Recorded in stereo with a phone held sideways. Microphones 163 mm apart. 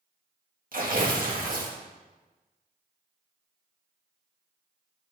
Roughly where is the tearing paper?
Right.